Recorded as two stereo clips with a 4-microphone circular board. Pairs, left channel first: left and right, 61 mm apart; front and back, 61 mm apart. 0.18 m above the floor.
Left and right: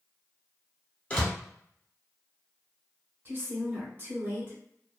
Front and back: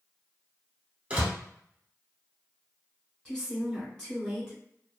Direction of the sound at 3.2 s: 70° right.